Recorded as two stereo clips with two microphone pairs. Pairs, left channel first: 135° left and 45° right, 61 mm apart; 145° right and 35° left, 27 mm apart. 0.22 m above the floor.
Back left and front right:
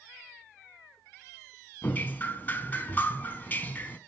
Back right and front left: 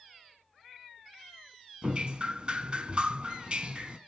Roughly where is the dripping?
Left.